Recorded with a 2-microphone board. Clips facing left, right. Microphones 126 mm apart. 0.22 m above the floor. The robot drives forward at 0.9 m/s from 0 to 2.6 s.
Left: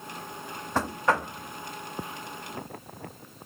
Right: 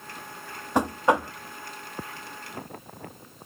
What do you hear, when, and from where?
0.8 s knocking: 15° right (ahead or behind), 0.8 m